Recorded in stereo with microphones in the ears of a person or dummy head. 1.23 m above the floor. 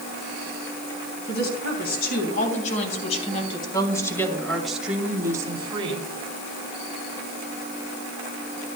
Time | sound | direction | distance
1.2 | a woman speaking | 55° left (ahead or behind) | 3.5 m